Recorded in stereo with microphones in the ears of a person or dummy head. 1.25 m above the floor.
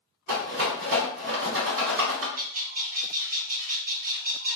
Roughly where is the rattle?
Right.